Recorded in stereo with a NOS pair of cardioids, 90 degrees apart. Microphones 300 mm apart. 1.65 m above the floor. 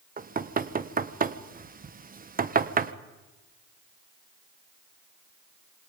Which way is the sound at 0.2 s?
30° right.